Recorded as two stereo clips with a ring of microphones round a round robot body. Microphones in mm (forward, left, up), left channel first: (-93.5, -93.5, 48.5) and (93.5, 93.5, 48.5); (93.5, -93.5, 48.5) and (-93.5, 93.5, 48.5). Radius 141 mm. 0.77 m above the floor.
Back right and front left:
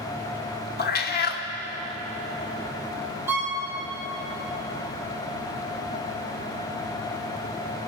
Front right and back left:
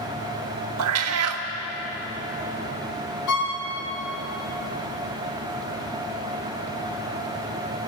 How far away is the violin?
About 4 m.